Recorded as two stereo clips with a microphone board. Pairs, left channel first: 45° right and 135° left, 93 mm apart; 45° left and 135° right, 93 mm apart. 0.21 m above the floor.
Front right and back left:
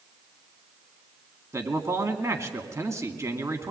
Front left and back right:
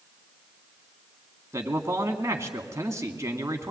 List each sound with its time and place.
1.5 s a man speaking: straight behind, 2 m